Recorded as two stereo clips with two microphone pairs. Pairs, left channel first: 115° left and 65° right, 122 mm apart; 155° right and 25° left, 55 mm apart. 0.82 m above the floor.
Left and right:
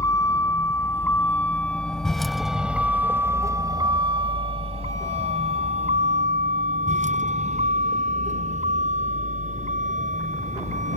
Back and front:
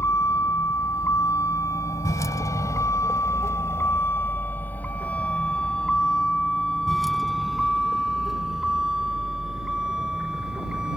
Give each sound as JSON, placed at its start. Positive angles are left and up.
{"t": 0.0, "sound": "a vehicle", "azimuth_deg": 180}